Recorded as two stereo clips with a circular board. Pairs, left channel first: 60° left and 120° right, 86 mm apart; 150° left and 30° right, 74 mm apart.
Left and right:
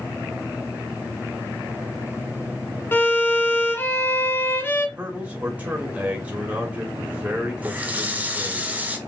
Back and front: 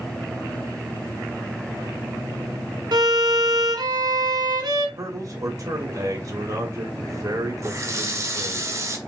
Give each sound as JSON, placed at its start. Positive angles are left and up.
{"t": 2.9, "sound": "a violin", "azimuth_deg": -5, "distance_m": 1.0}
{"t": 5.0, "sound": "a man speaking", "azimuth_deg": -50, "distance_m": 1.7}
{"t": 7.6, "sound": "a running tap", "azimuth_deg": -55, "distance_m": 0.9}